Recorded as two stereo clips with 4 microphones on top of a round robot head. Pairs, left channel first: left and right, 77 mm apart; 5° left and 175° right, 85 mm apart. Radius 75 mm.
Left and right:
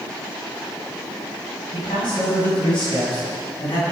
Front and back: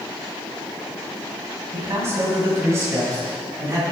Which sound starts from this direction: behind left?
A man speaking, at 1.7 s.